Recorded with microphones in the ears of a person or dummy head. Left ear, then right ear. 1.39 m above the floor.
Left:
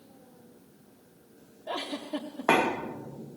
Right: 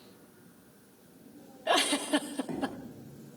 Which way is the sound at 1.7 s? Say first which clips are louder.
Right 8 dB; 40° right (ahead or behind).